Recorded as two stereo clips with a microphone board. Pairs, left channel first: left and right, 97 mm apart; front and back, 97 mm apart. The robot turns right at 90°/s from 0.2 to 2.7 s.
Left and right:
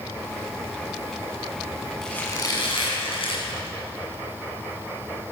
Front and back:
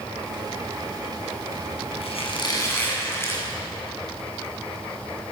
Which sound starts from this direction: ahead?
A squeak, at 2.0 s.